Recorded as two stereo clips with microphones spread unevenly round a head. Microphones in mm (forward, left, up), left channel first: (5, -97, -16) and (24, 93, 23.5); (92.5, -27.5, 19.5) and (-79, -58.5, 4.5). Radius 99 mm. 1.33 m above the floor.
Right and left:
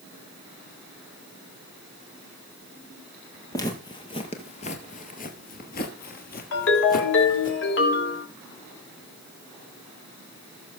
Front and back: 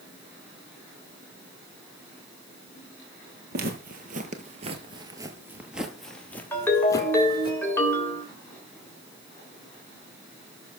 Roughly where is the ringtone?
Ahead right.